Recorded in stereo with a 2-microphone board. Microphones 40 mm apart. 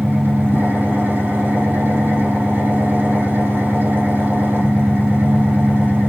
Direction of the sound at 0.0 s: 65° right (ahead or behind).